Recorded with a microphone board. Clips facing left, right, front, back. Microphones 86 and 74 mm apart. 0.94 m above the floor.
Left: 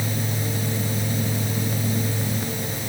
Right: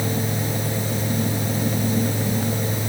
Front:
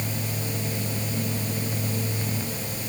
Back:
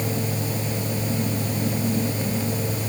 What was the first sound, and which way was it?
Only background noise.